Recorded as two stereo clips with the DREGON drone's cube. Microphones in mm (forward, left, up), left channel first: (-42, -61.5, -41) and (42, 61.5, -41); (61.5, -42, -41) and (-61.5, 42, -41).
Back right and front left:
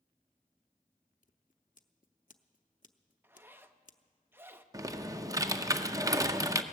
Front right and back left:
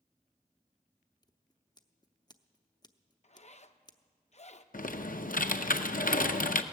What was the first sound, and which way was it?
Scissors, 95° right.